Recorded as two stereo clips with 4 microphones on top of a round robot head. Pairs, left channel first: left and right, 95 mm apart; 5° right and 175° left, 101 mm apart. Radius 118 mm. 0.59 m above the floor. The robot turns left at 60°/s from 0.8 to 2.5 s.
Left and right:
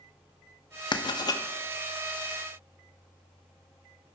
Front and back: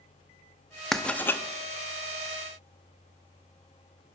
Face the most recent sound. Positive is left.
turn(degrees=-10)